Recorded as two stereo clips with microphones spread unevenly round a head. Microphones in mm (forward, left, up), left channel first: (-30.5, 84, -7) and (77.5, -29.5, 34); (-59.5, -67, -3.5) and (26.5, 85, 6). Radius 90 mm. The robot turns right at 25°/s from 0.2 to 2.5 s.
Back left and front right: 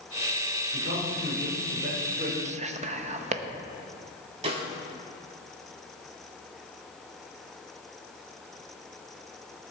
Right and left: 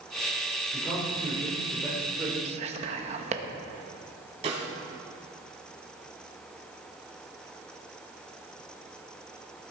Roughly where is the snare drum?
Ahead.